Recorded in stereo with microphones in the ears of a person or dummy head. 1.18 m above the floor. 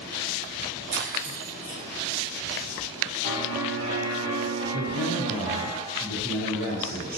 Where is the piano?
65° right (ahead or behind), 1.6 m.